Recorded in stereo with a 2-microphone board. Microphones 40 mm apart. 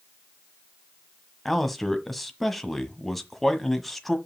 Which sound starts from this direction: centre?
A man speaking, at 1.4 s.